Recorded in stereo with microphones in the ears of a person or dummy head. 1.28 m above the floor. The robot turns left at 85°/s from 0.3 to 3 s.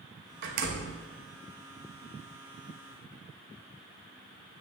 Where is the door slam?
115° right, 1.0 m; by 1.0 s 165° right, 1.0 m.